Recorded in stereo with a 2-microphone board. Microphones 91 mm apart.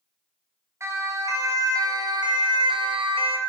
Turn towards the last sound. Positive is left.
turn(degrees=-80)